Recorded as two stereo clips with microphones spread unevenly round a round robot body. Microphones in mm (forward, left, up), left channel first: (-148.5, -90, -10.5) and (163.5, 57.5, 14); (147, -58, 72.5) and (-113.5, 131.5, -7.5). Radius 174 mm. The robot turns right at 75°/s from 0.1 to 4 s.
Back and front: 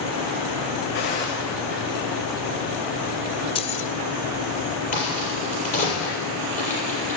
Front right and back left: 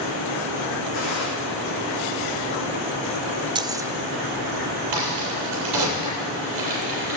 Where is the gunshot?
95° right, 6 m; by 1.3 s 70° right, 6 m.